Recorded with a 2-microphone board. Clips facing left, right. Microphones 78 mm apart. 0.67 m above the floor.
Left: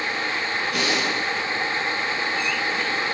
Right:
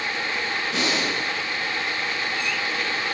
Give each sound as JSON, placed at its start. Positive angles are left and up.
{"t": 0.7, "sound": "breathing", "side_deg": -25, "distance_m": 8.0}